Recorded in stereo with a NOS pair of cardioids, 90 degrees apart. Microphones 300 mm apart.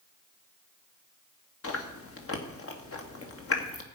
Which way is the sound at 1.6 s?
45° left.